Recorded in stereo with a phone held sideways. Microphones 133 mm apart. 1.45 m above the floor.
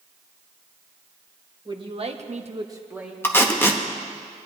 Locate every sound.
1.6 s a man speaking: 35° right (ahead or behind), 1.3 m; by 3.1 s 10° right (ahead or behind), 1.3 m
3.2 s tape being pulled: 15° left (ahead or behind), 0.8 m